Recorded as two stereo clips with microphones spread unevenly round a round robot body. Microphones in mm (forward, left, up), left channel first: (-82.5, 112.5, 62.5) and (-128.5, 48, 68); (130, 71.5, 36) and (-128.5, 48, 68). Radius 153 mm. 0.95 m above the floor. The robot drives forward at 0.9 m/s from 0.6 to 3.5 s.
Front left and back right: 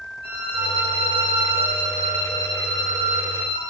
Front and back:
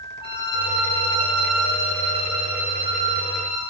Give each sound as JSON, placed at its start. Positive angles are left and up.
{"t": 0.2, "sound": "a violin", "azimuth_deg": -70, "distance_m": 2.5}